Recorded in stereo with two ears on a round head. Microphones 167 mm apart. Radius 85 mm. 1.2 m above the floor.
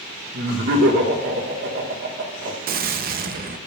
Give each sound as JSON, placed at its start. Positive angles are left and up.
{"t": 0.3, "sound": "laughter", "side_deg": -65, "distance_m": 1.4}
{"t": 2.7, "sound": "a gunshot", "side_deg": -50, "distance_m": 0.6}